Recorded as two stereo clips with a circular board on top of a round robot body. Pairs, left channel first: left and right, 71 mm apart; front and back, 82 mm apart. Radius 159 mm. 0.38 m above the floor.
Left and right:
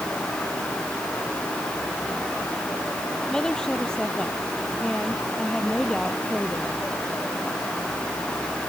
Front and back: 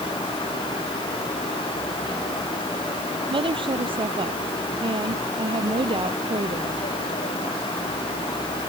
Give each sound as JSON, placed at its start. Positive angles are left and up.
{"t": 3.3, "sound": "a woman speaking", "azimuth_deg": 170}